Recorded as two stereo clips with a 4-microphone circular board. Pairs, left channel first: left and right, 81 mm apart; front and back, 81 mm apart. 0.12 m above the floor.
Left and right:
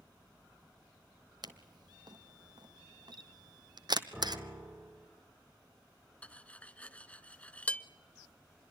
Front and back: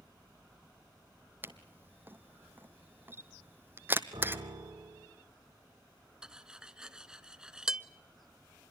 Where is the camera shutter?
115° right, 0.8 m.